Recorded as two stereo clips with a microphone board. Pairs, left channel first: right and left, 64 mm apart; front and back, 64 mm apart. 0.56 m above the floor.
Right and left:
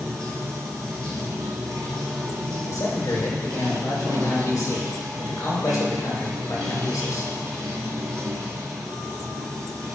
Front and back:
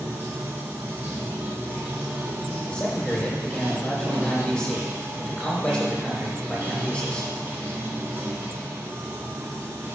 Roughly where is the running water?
Behind left.